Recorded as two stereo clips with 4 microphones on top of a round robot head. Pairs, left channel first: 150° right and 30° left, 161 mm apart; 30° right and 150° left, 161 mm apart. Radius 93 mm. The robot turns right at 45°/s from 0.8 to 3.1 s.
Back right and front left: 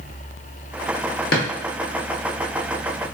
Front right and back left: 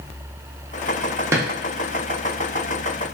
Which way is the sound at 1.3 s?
140° right.